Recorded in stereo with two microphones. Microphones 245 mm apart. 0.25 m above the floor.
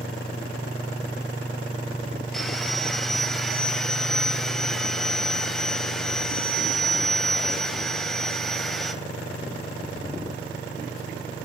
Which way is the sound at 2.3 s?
Centre (ahead or behind).